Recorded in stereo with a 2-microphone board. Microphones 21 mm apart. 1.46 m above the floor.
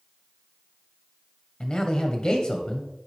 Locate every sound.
1.6 s a man speaking: 50° left (ahead or behind), 1.0 m